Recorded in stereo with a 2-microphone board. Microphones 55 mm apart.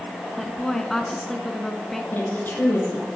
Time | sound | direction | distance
0.4 | a woman speaking | 5° left (ahead or behind) | 1.5 m
2.1 | a woman speaking | 35° left (ahead or behind) | 5.5 m